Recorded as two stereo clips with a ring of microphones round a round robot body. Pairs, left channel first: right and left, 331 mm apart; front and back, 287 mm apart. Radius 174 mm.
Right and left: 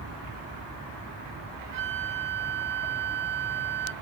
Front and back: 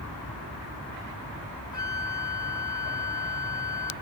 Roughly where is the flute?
Ahead left.